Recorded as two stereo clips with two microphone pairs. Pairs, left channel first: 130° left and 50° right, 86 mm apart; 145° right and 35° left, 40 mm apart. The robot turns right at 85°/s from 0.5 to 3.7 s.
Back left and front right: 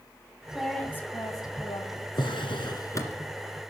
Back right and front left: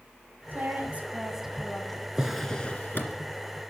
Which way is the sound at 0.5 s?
35° left.